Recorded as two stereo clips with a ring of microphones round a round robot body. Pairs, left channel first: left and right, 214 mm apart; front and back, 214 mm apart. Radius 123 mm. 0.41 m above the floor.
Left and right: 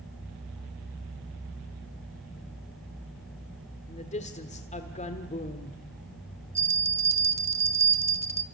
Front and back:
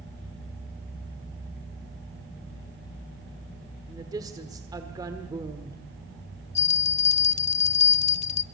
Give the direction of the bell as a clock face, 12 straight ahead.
1 o'clock.